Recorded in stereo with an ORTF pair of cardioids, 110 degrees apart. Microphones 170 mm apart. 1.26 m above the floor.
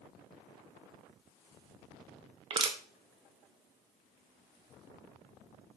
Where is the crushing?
30° right, 0.5 m.